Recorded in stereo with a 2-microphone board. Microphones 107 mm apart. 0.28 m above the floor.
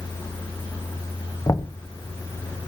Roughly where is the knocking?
Left.